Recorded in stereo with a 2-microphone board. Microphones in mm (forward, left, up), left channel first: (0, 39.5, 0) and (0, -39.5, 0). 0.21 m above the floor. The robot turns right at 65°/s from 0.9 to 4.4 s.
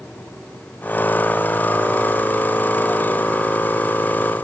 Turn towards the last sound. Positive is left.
No sound to turn to.